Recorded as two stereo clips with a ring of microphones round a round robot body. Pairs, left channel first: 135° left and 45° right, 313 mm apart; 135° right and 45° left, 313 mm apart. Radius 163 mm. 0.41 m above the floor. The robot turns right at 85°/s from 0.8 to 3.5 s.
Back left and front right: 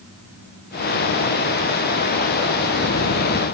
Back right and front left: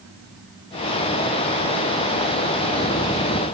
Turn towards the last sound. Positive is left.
No sound to turn to.